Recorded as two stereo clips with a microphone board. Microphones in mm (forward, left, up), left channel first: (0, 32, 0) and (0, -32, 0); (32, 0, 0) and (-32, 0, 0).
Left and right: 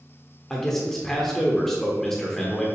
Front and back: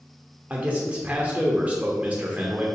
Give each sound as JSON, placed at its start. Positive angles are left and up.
{"t": 0.5, "sound": "a man speaking", "azimuth_deg": 165, "distance_m": 1.0}